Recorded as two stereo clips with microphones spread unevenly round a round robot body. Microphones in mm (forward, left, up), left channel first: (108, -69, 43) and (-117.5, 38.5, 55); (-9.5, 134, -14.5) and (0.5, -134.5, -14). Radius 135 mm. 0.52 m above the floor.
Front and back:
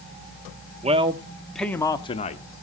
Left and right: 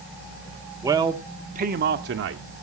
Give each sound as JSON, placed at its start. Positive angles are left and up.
{"t": 0.8, "sound": "a man speaking", "azimuth_deg": -160, "distance_m": 1.0}